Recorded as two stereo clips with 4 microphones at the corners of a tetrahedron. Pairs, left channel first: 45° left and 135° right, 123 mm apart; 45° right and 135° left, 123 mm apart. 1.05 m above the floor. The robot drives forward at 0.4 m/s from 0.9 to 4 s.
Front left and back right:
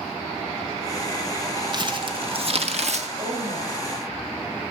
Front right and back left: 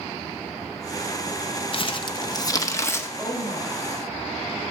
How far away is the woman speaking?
About 4.5 m.